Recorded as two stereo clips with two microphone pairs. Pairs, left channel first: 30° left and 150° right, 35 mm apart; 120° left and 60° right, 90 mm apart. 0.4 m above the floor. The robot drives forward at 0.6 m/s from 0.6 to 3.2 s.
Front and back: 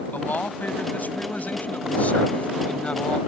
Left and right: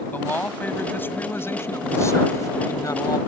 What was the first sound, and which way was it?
A man speaking, 50° left.